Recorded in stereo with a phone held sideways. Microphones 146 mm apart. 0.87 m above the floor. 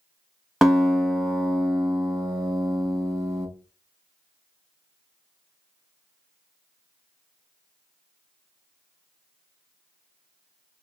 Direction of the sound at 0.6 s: Centre (ahead or behind).